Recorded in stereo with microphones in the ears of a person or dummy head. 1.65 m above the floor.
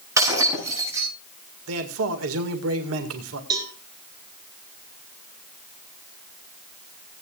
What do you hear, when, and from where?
0.2 s breaking glass: 15° right (ahead or behind), 8 m
1.7 s a man speaking: 80° right, 2.0 m
3.5 s a cowbell: 20° right (ahead or behind), 4 m